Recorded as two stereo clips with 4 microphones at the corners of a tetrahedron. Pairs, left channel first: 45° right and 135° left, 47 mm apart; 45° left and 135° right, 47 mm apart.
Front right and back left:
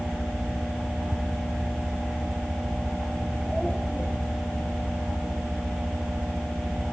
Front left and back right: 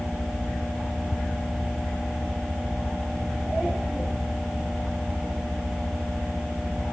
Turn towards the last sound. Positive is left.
turn(degrees=55)